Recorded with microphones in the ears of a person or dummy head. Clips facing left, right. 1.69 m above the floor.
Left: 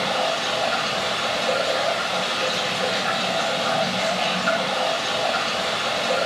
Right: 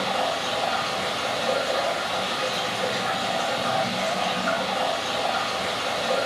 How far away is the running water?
About 1.0 m.